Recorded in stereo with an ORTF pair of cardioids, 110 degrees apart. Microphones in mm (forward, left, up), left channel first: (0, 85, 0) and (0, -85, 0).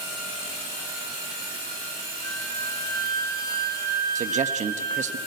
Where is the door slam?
I don't hear a door slam.